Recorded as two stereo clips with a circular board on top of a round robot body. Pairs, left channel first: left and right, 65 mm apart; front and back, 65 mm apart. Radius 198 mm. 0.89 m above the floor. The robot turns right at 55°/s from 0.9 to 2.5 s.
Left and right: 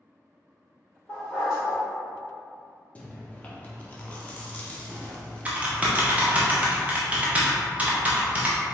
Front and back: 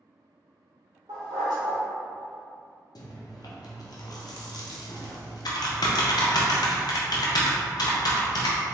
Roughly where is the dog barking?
Behind.